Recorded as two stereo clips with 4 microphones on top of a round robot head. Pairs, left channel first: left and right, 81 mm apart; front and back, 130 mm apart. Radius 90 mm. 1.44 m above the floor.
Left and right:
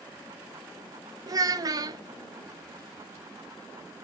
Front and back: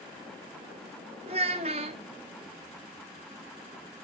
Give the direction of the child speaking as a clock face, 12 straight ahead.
4 o'clock.